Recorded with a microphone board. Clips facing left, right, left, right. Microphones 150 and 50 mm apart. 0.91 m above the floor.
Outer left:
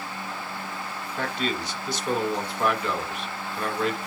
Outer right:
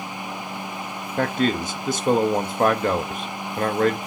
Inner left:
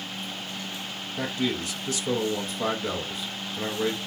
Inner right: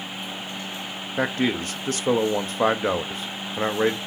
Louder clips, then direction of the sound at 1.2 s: Outer right 7 dB, inner right 5 dB; 50° right (ahead or behind).